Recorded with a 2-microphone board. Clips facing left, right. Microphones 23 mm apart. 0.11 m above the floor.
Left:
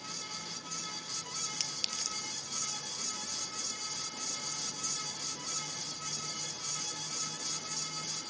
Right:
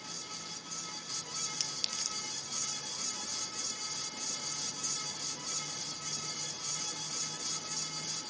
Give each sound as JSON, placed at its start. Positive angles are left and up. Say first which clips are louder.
{"t": 1.6, "sound": "a clink", "louder": "even", "side_deg": 15, "distance_m": 1.2}